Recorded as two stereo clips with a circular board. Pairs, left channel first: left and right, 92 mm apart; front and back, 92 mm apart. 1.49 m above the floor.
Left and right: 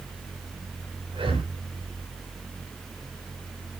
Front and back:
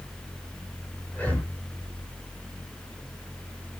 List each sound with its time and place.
1.1 s breathing: 70° right, 5.5 m